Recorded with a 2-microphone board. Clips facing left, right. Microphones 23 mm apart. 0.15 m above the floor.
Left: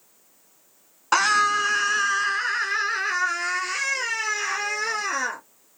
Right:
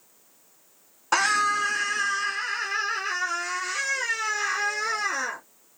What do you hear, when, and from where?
1.1 s a scream: 20° left (ahead or behind), 1.1 m; by 5.4 s 45° left (ahead or behind), 3.5 m